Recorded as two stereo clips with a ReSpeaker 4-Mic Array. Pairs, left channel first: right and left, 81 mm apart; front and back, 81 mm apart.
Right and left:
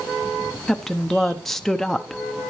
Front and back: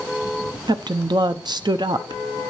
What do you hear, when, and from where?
0.7 s a woman speaking: 175° right, 0.8 m